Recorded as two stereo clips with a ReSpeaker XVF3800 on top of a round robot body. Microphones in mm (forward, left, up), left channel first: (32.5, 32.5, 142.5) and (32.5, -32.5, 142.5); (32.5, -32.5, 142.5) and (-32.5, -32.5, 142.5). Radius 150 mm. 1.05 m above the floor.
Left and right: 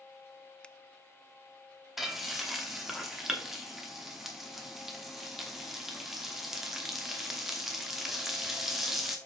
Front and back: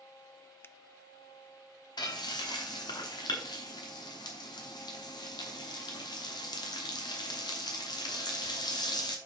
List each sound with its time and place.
0.6 s a finger snap: 25° left, 0.6 m
2.0 s frying: 5° right, 0.9 m